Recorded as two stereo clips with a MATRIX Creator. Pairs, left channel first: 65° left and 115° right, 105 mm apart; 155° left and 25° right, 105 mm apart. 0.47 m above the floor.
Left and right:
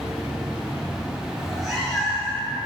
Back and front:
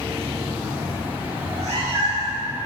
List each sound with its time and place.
1.4 s a cat meowing: 20° right, 2.5 m